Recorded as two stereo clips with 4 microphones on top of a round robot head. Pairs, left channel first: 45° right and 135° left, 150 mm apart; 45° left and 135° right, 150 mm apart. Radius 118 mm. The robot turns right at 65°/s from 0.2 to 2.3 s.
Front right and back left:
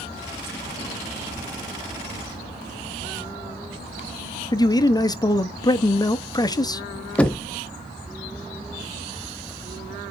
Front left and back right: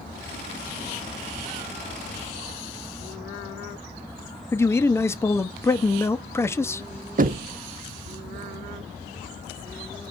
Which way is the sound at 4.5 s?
10° right.